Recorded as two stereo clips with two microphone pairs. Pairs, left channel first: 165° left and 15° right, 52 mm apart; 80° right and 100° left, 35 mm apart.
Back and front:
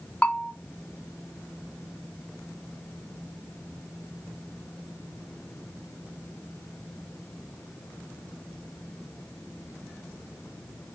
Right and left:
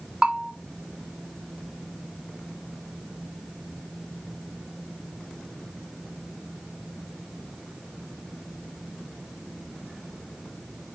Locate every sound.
0.2 s a bell: 125° left, 0.7 m